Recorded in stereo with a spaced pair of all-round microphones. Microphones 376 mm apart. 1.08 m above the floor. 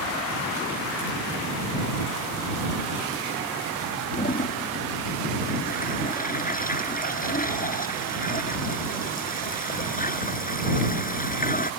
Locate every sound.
4.1 s a toilet flushing: 20° left (ahead or behind)